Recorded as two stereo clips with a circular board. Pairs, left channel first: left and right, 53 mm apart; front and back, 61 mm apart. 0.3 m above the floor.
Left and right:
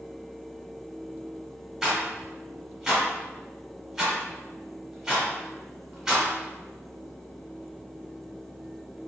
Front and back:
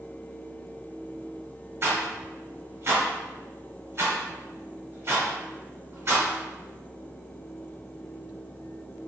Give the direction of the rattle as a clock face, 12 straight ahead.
6 o'clock.